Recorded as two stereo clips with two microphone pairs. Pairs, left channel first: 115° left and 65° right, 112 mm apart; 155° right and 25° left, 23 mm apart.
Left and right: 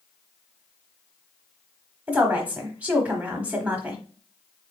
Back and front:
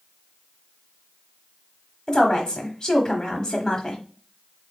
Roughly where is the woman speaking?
Behind right.